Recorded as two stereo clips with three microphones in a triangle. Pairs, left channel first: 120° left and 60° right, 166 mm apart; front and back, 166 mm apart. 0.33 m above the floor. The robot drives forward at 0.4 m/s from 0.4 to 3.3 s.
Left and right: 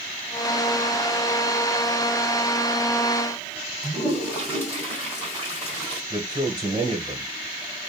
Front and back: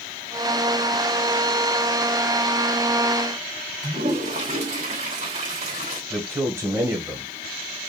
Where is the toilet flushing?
170° right, 2.0 m.